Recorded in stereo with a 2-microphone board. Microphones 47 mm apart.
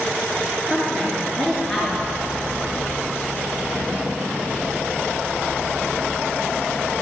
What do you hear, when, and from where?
0.7 s a woman speaking: centre (ahead or behind), 3 m